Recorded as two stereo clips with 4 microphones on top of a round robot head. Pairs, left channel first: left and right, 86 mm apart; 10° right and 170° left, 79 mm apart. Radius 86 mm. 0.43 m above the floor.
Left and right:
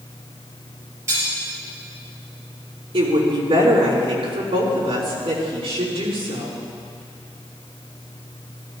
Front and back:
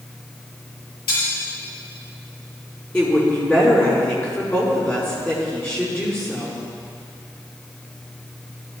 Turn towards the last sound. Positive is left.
turn(degrees=-80)